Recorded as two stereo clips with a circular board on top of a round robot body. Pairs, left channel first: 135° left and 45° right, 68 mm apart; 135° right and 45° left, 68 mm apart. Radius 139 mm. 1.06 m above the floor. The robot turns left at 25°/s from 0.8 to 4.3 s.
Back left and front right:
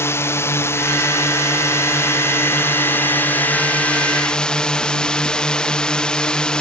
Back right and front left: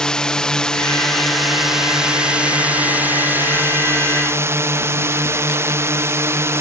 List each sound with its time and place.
0.0 s a drone: 150° left; by 6.6 s 65° left